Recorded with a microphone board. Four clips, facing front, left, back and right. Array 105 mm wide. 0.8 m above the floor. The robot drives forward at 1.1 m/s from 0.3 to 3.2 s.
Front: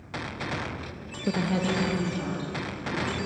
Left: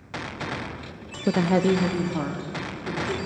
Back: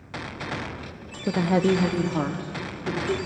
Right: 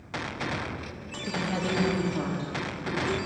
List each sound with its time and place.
1.3 s a woman speaking: 100° left, 0.5 m; by 3.3 s 170° left, 2.5 m